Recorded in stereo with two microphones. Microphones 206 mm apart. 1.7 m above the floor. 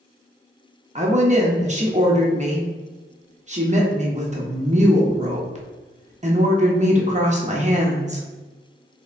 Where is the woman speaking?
35° right (ahead or behind), 0.7 m.